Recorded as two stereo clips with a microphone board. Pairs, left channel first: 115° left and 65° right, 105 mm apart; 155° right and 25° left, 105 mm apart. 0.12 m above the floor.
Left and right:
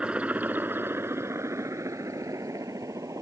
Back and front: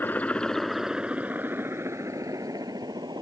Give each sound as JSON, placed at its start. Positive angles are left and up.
{"t": 0.0, "sound": "a helicopter", "azimuth_deg": -130}